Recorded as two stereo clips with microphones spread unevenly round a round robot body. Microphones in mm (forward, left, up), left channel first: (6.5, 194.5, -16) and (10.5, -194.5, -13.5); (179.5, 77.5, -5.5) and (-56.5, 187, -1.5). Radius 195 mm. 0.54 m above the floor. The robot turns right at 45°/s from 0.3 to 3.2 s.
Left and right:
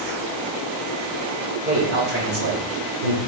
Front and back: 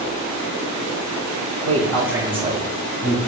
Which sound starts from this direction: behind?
A man speaking, at 1.6 s.